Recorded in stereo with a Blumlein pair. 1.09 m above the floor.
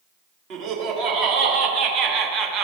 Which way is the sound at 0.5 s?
40° right.